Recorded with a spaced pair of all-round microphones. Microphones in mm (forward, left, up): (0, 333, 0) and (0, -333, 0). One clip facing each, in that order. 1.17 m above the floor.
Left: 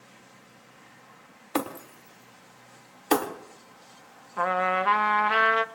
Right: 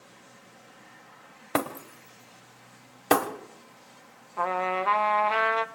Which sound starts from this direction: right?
Breaking glass, at 1.6 s.